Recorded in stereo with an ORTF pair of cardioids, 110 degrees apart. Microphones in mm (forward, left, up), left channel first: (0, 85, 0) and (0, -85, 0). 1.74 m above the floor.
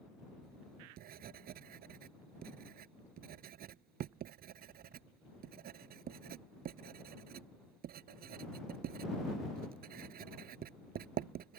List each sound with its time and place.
0.4 s writing: 65° right